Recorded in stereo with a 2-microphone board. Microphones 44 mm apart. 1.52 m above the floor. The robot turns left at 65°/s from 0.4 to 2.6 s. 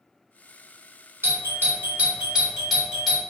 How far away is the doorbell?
About 1.2 m.